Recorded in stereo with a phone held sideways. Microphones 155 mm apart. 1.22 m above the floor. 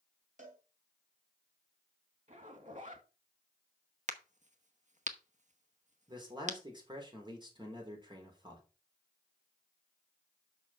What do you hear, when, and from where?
0.4 s a cowbell: 55° right (ahead or behind), 3.5 m
2.3 s a zipper: 55° right (ahead or behind), 2 m
4.1 s a crack: 50° right (ahead or behind), 1.0 m
6.1 s a man speaking: 30° right (ahead or behind), 3.5 m